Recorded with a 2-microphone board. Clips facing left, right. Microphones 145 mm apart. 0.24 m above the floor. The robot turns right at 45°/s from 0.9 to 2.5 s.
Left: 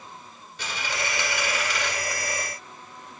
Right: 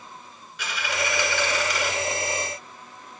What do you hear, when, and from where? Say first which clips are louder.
0.6 s a dropped coin: right 3 dB; 140° left, 1.2 m; by 1.9 s 175° right, 1.2 m